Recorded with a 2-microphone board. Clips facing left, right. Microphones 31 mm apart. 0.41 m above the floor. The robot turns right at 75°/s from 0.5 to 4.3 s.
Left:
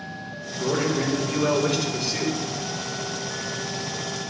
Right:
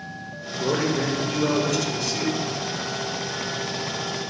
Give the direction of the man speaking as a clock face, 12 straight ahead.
1 o'clock.